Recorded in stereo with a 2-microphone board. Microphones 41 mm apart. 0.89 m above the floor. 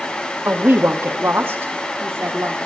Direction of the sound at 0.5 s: 60° right (ahead or behind).